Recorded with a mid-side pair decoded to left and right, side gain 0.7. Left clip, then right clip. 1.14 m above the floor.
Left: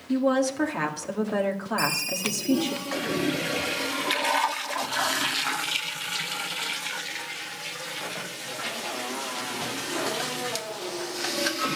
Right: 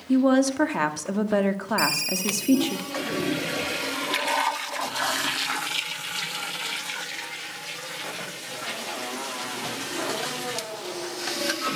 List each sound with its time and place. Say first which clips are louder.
0.1 s a woman speaking: right 3 dB; 25° right, 1.9 m
1.8 s a ringtone: right 2 dB; 25° right, 3 m